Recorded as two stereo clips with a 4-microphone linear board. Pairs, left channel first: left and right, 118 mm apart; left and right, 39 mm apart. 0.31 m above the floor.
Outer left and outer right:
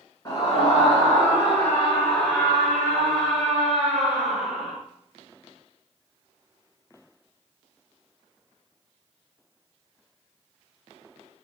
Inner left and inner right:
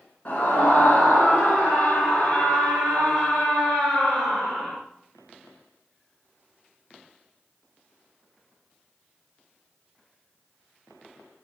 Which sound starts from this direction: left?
A scream, at 0.2 s.